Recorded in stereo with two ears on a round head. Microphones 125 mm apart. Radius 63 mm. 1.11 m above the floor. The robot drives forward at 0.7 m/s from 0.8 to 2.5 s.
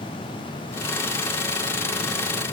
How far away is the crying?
I don't hear crying.